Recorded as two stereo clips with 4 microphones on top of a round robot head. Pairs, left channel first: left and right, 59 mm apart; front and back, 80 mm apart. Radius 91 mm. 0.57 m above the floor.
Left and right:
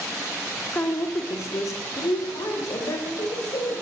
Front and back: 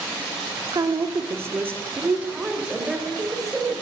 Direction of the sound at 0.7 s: 145° left.